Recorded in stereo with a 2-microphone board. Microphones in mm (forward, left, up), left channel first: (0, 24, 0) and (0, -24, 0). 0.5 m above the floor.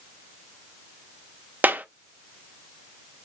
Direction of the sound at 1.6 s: 35° right (ahead or behind).